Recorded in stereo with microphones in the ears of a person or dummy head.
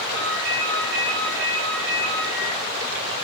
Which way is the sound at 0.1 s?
70° right (ahead or behind).